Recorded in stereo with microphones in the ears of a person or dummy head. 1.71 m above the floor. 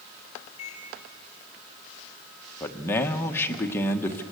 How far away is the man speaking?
About 1.3 m.